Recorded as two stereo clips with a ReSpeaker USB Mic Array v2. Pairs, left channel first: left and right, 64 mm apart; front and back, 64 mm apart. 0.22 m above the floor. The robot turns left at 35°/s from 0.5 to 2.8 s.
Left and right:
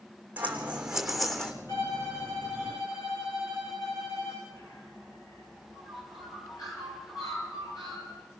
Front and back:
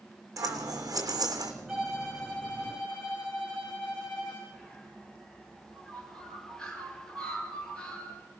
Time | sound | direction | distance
0.4 | scissors | 155° right | 2.5 m
1.7 | a violin | 100° left | 6 m
4.5 | a bird | 75° left | 4.5 m